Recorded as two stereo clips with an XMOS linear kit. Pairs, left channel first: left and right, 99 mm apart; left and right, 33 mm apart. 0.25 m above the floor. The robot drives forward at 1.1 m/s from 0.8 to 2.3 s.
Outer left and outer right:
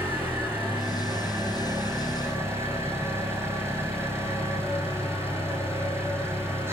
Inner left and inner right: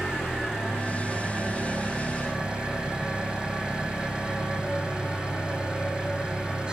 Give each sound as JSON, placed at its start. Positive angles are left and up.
{"t": 0.0, "sound": "an engine running", "side_deg": -20, "distance_m": 8.0}